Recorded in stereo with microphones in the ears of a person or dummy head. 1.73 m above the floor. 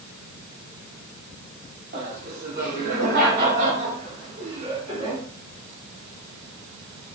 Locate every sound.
1.9 s laughter: 50° right (ahead or behind), 5 m; by 5.2 s 25° right (ahead or behind), 4 m